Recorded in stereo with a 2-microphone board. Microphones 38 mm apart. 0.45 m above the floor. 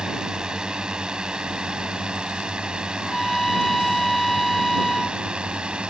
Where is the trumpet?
10° left (ahead or behind).